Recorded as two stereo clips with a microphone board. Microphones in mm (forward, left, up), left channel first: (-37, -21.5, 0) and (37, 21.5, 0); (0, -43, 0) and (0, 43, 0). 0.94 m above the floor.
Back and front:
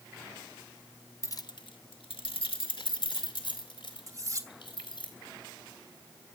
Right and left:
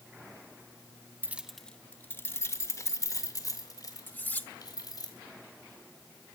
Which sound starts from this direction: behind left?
Keys jangling, at 1.2 s.